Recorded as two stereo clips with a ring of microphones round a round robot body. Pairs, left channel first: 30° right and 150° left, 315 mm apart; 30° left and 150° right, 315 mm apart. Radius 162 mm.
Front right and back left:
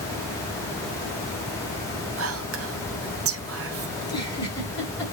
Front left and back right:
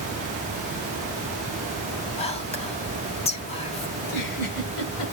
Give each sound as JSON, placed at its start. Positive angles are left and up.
{"t": 2.2, "sound": "whispering", "azimuth_deg": 100, "distance_m": 1.5}
{"t": 4.0, "sound": "a giggle", "azimuth_deg": 45, "distance_m": 6.5}